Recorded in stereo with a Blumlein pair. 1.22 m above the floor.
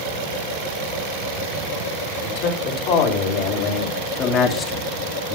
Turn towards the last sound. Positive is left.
turn(degrees=0)